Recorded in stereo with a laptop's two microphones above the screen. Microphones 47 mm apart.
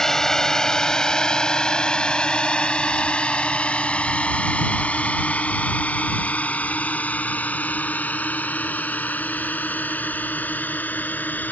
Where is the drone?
10° left (ahead or behind); by 11.5 s 35° left (ahead or behind).